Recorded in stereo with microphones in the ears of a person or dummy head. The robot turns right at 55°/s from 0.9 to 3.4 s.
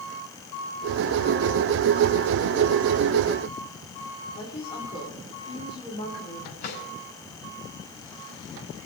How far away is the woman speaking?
About 2.5 m.